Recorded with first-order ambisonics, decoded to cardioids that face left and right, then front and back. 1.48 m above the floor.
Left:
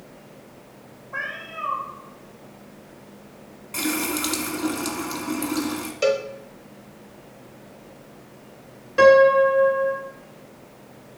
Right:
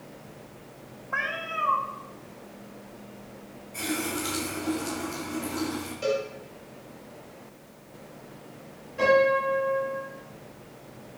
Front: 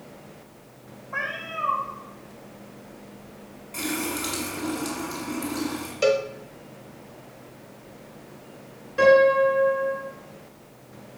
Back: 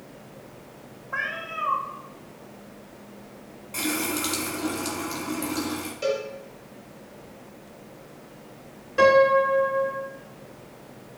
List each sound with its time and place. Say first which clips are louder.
1.1 s a cat meowing: right 2 dB, even; 110° right, 1.9 m
3.7 s a running tap: left 5 dB, back 2 dB; 105° left, 1.5 m
6.0 s a cowbell: left 6 dB, front 6 dB; 55° left, 0.8 m
9.0 s a piano: left 8 dB, front 1 dB; 110° left, 1.9 m